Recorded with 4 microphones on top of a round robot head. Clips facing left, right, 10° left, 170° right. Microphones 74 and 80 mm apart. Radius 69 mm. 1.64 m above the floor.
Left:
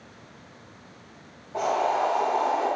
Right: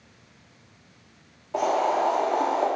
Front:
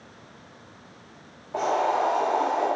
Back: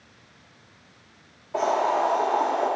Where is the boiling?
70° right, 1.0 m.